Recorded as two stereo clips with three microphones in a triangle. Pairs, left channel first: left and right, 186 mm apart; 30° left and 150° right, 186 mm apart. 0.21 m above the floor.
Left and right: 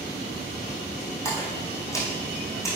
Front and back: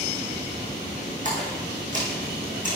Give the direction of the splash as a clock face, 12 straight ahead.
7 o'clock.